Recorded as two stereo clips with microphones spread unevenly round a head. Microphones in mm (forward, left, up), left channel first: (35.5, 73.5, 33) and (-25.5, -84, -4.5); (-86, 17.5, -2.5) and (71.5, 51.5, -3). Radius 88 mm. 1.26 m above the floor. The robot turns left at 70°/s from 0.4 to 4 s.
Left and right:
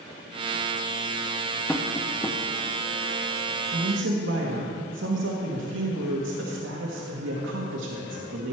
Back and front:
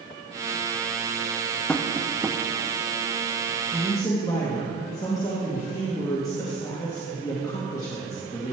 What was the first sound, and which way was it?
Tapping, 115° left.